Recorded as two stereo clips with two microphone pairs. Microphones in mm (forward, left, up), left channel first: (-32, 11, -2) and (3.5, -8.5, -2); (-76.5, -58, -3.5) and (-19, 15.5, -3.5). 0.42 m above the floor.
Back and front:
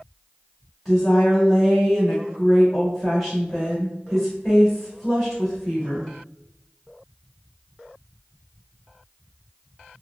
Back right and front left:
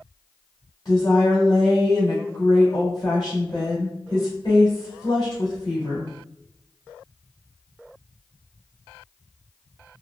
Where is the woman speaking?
115° right, 1.3 m.